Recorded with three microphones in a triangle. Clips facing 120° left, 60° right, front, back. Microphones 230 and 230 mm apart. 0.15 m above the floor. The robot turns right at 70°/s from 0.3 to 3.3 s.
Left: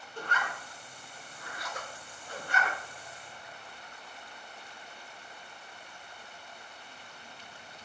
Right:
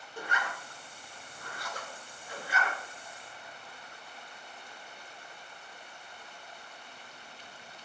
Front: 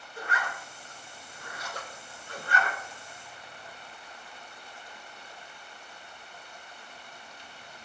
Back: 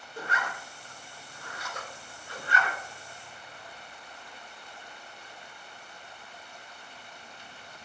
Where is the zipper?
135° right, 0.5 m; by 2.8 s 35° left, 0.5 m.